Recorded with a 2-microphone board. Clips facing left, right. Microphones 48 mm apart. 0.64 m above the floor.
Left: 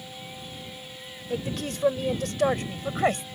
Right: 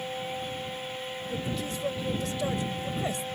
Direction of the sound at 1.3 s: 70° left (ahead or behind).